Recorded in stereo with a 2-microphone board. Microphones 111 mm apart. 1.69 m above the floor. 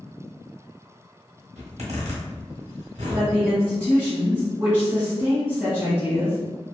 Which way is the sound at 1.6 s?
85° right.